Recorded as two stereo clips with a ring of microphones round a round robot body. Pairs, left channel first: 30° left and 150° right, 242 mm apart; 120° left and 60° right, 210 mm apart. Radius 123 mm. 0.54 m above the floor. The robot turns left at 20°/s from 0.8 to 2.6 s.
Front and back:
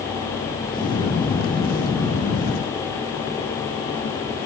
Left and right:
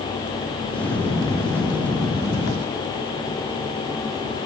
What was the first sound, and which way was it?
Only background noise.